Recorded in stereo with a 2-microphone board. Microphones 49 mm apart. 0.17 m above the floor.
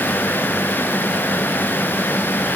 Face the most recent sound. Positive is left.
No sound to turn to.